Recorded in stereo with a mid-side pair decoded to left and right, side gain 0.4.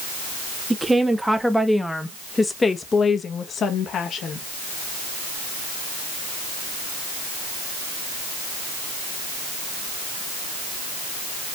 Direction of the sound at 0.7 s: 15° right.